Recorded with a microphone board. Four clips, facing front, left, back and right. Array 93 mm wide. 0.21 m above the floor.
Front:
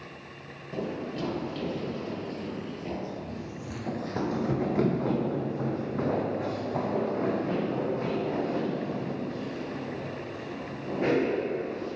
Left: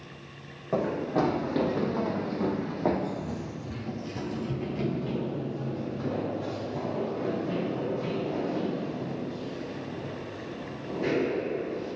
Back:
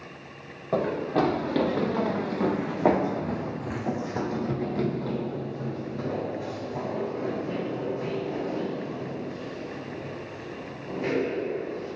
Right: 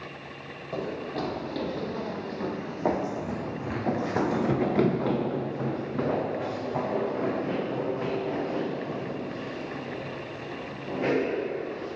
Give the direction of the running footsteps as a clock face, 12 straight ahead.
7 o'clock.